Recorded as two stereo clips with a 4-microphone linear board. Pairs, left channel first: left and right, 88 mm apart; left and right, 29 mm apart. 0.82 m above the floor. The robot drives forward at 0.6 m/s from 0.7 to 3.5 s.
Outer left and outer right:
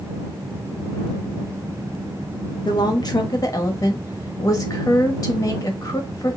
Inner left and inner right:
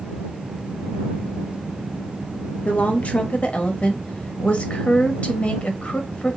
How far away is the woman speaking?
About 0.7 m.